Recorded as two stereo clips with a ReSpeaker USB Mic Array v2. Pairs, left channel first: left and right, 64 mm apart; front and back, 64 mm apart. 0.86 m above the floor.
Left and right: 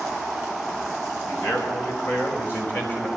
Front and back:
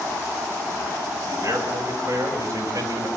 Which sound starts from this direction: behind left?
A man speaking, at 1.3 s.